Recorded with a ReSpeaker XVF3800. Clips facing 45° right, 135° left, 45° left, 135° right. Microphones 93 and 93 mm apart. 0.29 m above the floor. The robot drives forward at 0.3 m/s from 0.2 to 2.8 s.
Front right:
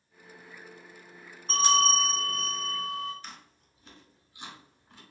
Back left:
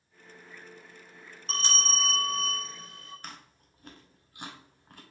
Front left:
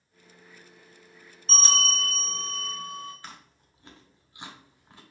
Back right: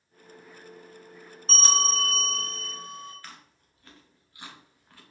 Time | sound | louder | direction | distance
1.5 | a bell | front right 9 dB, back right 2 dB | 110° right | 1.3 m
3.2 | chewing | back left 1 dB, front left 2 dB | 110° left | 0.6 m